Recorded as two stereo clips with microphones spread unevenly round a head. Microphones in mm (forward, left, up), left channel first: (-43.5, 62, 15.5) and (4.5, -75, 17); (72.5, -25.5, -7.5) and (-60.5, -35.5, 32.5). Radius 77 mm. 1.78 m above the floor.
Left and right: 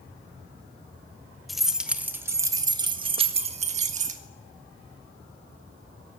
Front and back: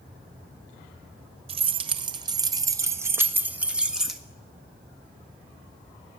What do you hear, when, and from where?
1.5 s keys jangling: 160° right, 1.5 m; by 4.2 s 95° right, 1.8 m